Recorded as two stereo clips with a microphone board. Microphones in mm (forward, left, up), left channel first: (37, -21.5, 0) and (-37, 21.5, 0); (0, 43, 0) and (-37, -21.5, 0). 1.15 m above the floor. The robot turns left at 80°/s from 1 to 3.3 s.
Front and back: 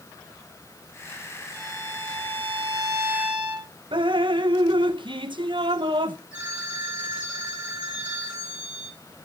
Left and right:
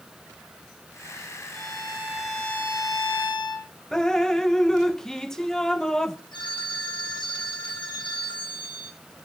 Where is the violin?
145° right, 5 m; by 3.7 s 70° left, 5 m.